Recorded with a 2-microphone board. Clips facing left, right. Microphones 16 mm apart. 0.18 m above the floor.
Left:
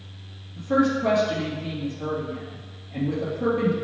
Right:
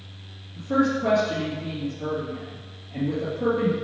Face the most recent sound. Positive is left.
turn(degrees=10)  # may be behind; listen again after turning